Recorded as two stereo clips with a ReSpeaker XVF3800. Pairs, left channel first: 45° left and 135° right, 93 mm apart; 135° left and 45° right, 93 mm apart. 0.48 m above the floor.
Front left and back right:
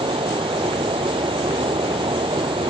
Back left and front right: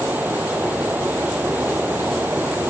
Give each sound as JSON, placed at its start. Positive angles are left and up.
{"t": 0.0, "sound": "running water", "azimuth_deg": -115}